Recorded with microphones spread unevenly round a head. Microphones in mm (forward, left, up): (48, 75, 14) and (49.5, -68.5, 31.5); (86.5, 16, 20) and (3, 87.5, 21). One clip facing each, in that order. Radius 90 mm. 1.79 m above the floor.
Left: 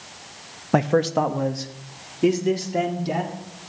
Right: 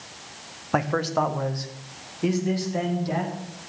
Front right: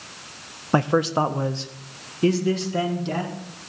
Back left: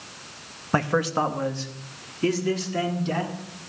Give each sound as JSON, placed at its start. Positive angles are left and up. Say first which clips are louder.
{"t": 0.7, "sound": "a man speaking", "louder": "left 5 dB, front right 3 dB", "azimuth_deg": 25, "distance_m": 0.5}